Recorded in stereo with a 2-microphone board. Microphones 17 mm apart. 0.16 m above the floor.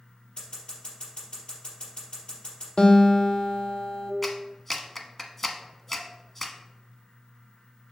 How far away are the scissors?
About 3.5 m.